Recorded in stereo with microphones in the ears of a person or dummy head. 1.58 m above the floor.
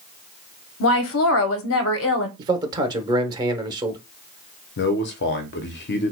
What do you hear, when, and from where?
0.8 s a woman speaking: 70° left (ahead or behind), 0.8 m
2.4 s a man speaking: 20° right (ahead or behind), 0.8 m
4.8 s a man speaking: 55° left (ahead or behind), 0.7 m